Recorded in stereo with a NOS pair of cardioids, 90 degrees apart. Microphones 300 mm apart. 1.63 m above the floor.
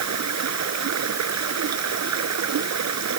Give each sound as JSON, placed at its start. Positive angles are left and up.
{"t": 0.0, "sound": "running water", "azimuth_deg": -60}